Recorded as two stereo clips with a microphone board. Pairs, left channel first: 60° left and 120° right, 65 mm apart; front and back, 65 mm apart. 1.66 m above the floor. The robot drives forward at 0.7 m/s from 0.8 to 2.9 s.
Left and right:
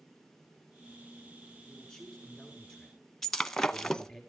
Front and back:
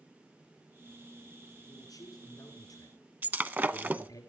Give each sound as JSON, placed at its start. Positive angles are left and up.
{"t": 1.7, "sound": "a man speaking", "azimuth_deg": -25, "distance_m": 7.0}
{"t": 3.2, "sound": "breaking glass", "azimuth_deg": 140, "distance_m": 1.0}